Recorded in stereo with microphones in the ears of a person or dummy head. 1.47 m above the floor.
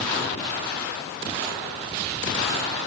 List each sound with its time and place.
Only background noise.